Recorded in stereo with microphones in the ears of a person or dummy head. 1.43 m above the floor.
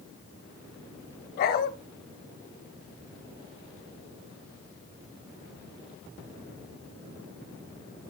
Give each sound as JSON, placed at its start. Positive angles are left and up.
{"t": 1.4, "sound": "a dog barking", "side_deg": 45, "distance_m": 1.7}